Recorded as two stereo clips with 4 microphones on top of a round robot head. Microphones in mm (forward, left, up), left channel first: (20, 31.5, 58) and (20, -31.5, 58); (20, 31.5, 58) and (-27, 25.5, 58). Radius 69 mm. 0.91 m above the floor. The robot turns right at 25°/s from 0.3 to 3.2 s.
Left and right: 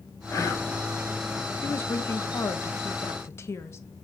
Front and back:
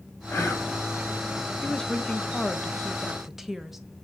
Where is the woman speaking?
65° left, 1.1 m; by 3.8 s 105° left, 1.1 m.